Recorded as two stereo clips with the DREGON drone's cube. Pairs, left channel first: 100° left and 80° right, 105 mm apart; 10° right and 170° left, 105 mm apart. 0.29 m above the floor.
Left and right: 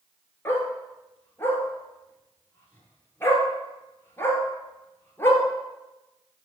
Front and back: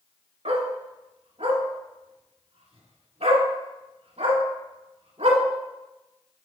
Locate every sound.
0.5 s a dog barking: 170° left, 1.4 m